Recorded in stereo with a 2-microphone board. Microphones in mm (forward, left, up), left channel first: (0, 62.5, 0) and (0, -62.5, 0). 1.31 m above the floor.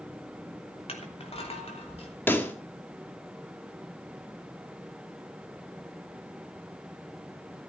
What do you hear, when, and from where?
0.9 s crushing: 55° left (ahead or behind), 3 m
2.3 s a pop: 15° left (ahead or behind), 1.6 m